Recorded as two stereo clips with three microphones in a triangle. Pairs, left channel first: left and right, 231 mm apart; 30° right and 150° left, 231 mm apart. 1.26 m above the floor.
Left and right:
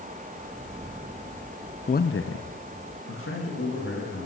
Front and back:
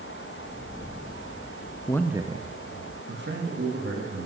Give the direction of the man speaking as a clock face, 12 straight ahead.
11 o'clock.